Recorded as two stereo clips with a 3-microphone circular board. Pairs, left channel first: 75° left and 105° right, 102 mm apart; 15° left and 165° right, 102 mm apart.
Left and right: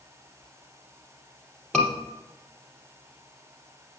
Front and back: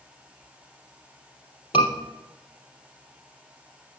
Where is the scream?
10° right, 4 m.